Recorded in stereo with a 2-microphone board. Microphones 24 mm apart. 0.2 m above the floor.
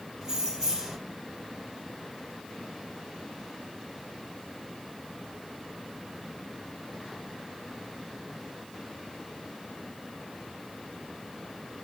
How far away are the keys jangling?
About 3 m.